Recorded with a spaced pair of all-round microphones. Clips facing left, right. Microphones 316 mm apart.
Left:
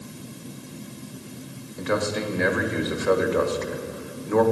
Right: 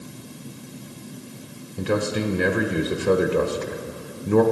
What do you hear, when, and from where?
1.8 s a man speaking: 40° right (ahead or behind), 1.2 m